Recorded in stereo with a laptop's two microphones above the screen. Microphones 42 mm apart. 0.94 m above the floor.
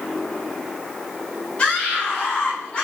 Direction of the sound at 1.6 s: 25° left (ahead or behind).